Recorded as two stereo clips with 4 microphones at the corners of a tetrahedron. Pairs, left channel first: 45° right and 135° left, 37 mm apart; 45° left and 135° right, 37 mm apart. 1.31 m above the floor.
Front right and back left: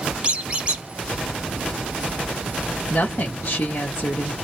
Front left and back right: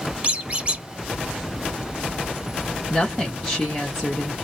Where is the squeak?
175° right, 0.8 m.